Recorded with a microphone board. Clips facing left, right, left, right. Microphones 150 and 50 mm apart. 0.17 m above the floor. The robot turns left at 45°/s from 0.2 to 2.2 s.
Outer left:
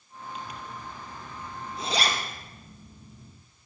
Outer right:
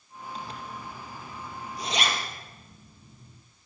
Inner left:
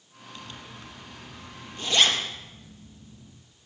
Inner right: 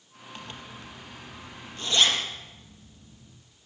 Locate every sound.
0.3 s a zipper: 35° right (ahead or behind), 4.5 m; by 3.4 s 45° left (ahead or behind), 4.5 m